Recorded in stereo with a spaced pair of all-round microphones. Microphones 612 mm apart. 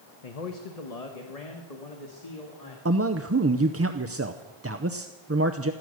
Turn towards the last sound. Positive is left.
turn(degrees=-25)  # may be behind; listen again after turning